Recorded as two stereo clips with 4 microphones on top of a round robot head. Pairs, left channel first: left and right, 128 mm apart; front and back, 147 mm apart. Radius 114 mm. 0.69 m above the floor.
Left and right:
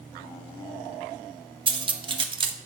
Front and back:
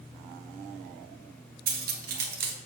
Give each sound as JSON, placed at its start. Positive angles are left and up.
{"t": 1.7, "sound": "cutlery clinking", "azimuth_deg": -145, "distance_m": 0.6}